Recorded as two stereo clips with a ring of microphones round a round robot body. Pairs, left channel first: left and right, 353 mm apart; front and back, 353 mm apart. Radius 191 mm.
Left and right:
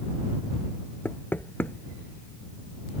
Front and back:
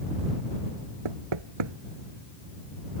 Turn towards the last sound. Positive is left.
turn(degrees=175)